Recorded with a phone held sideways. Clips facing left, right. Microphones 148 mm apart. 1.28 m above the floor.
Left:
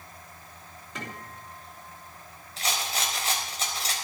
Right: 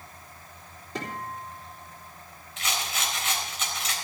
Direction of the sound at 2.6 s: 35° left (ahead or behind).